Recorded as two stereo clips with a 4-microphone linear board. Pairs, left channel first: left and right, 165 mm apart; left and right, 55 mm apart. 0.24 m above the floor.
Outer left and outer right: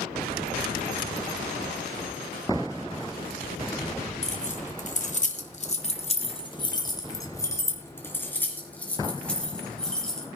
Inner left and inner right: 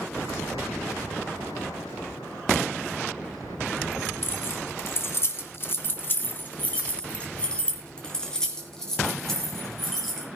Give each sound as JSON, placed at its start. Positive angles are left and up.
{"t": 4.2, "sound": "keys jangling", "side_deg": 40, "distance_m": 1.7}